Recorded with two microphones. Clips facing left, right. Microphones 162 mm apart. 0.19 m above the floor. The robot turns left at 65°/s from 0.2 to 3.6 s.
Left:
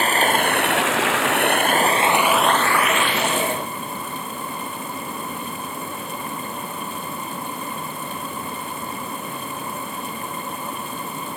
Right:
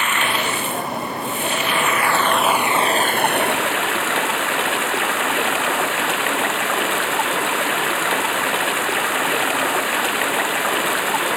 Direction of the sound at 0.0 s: 145° left.